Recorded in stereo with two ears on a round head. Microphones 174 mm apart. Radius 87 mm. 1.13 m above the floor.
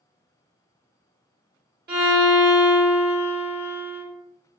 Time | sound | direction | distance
1.9 | a violin | 50° right (ahead or behind) | 1.3 m